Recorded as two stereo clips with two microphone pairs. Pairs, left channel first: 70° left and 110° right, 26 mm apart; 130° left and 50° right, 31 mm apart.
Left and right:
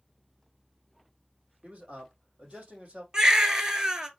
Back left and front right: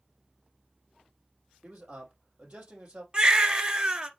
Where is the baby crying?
70° right, 1.1 m.